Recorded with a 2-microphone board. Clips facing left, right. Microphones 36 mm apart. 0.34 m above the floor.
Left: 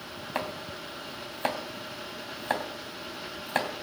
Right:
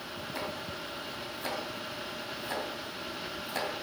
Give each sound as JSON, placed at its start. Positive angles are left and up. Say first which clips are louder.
{"t": 0.3, "sound": "chopping", "louder": "left 5 dB", "side_deg": 55, "distance_m": 2.5}